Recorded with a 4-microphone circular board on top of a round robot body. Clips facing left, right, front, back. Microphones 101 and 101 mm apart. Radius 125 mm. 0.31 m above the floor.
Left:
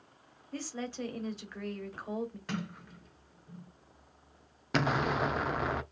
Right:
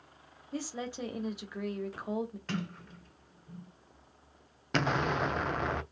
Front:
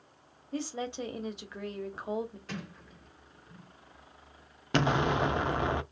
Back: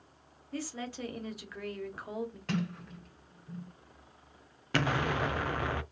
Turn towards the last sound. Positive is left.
turn(degrees=10)